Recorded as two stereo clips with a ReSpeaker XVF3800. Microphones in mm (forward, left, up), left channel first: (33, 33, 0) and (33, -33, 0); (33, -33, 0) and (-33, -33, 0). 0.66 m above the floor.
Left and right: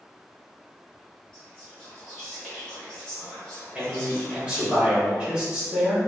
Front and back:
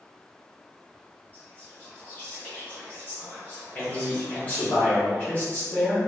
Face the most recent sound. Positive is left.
turn(degrees=-30)